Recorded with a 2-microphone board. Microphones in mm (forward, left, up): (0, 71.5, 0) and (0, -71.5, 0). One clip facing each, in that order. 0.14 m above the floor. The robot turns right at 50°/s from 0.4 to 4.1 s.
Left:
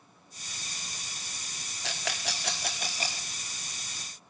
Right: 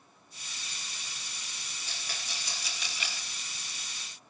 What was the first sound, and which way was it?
A rattle, 80° left.